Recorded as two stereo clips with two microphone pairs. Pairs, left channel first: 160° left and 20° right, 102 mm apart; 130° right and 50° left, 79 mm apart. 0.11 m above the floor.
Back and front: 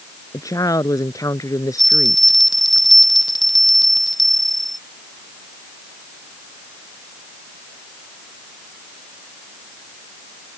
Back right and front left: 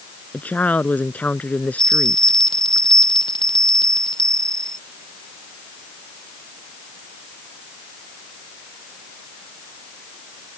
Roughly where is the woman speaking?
Behind.